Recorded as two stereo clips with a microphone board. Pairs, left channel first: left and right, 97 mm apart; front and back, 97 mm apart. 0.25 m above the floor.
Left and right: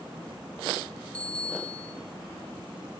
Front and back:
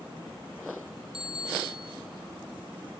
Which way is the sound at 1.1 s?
165° left.